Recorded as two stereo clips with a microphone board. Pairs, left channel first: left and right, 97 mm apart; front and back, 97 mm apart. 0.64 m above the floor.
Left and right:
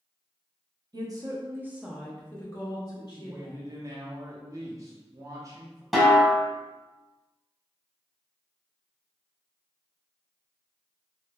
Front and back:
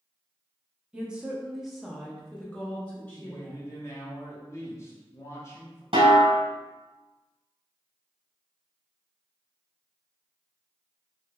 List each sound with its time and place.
0.9 s a woman speaking: 105° right, 0.8 m; by 3.6 s 70° left, 1.0 m
3.1 s a woman speaking: 50° right, 0.8 m
5.9 s a snare drum: 175° right, 1.0 m